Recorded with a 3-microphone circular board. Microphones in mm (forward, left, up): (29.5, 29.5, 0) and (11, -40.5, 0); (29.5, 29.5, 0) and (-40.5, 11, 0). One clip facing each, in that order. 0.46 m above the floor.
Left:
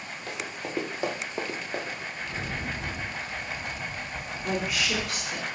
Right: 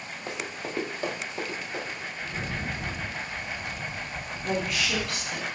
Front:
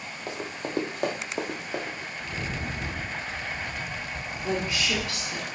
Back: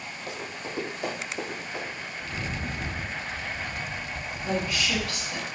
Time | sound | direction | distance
0.3 | running footsteps | 40° right | 0.7 m
2.2 | a rattle | 15° left | 1.0 m
4.4 | a woman speaking | straight ahead | 1.2 m